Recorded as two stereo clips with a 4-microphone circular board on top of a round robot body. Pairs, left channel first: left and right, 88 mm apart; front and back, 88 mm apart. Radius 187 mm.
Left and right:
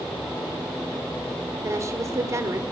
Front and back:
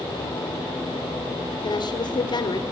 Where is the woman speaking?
35° right, 2.5 m.